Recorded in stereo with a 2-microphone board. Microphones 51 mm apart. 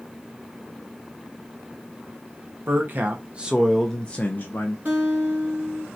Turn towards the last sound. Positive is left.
turn(degrees=-35)  # may be behind; listen again after turning